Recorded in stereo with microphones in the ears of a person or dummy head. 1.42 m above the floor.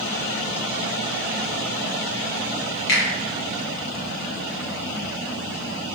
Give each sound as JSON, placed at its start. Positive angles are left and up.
{"t": 2.9, "sound": "a finger snap", "side_deg": 60, "distance_m": 1.0}